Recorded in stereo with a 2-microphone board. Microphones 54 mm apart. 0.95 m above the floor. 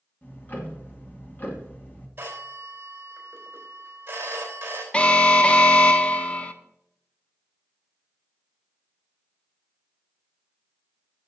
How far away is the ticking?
About 2.0 m.